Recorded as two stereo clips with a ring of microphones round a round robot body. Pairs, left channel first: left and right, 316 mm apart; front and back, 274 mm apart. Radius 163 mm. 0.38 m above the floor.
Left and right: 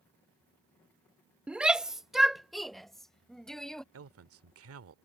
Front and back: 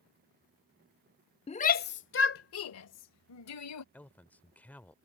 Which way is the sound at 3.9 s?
80° right.